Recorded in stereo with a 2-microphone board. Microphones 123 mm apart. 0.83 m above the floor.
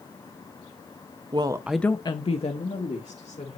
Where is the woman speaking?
40° right (ahead or behind), 0.7 m; by 3.6 s 75° left (ahead or behind), 1.9 m.